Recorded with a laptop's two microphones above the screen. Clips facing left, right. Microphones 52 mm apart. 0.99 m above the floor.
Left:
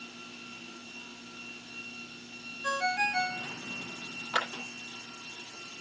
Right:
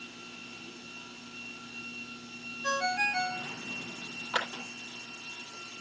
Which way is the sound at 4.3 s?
10° left (ahead or behind).